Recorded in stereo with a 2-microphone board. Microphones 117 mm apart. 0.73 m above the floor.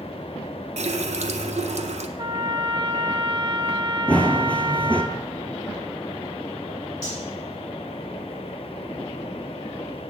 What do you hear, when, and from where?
0.8 s a running tap: 70° right (ahead or behind), 0.6 m
2.2 s a trumpet: 40° right (ahead or behind), 1.1 m
4.1 s running footsteps: 10° left (ahead or behind), 0.8 m
7.0 s cutlery clinking: 35° left (ahead or behind), 3.5 m